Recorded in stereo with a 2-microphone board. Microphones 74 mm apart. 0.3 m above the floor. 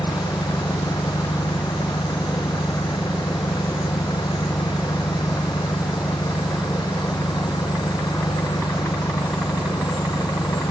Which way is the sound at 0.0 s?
80° left.